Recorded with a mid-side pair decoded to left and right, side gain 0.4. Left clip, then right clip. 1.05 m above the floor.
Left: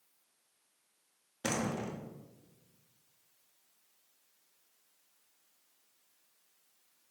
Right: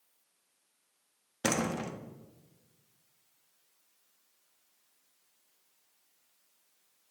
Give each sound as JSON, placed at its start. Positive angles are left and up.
{"t": 1.4, "sound": "a door slam", "azimuth_deg": -50, "distance_m": 1.0}